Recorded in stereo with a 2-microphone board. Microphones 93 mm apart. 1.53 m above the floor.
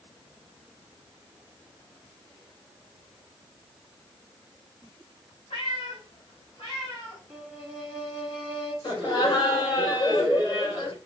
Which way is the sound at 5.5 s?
80° left.